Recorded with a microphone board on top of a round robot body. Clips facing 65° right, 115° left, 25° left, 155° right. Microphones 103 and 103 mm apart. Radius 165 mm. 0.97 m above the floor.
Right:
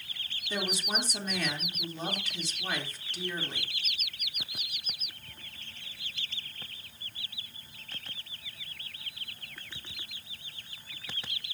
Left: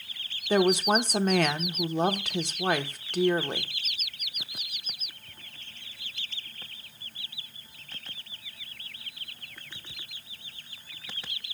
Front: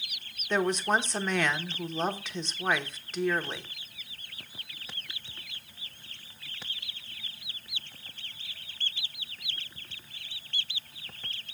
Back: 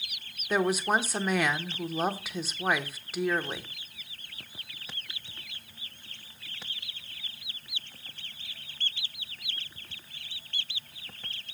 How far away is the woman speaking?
About 1.1 m.